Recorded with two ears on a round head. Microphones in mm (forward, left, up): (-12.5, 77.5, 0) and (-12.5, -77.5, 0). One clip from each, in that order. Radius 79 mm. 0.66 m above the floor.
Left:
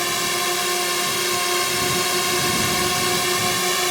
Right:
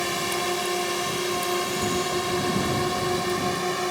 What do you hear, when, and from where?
0.0 s a drone: 30° left (ahead or behind); by 3.9 s 60° left (ahead or behind)